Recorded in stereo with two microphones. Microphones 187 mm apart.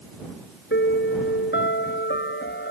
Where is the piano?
75° left (ahead or behind).